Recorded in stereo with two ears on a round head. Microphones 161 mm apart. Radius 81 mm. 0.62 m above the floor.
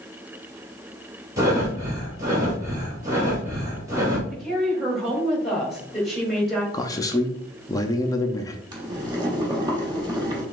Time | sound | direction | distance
1.4 | breathing | 20° right (ahead or behind) | 2.5 m
4.3 | a woman speaking | centre (ahead or behind) | 2.5 m
6.7 | a man speaking | 20° left (ahead or behind) | 0.5 m
8.7 | boiling | 25° right (ahead or behind) | 1.4 m